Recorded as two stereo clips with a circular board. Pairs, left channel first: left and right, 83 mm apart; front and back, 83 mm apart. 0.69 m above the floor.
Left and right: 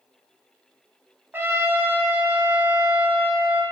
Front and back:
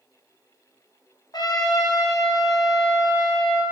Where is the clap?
I don't hear a clap.